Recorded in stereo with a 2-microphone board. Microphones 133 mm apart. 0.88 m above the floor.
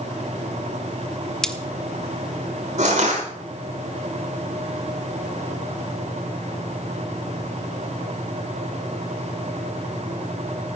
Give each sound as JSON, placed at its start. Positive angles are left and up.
{"t": 1.4, "sound": "cutlery clinking", "side_deg": 5, "distance_m": 1.0}
{"t": 2.8, "sound": "crushing", "side_deg": -70, "distance_m": 6.0}